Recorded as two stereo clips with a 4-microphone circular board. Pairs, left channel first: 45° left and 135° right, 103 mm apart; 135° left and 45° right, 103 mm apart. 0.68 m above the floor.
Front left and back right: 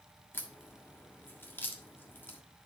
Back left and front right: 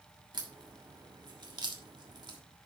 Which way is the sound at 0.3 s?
20° right.